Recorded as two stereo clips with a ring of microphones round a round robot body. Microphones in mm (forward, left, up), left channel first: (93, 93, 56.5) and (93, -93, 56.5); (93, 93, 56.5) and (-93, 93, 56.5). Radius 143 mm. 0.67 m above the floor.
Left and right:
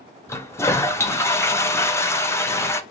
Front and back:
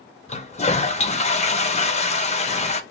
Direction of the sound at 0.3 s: 20° left.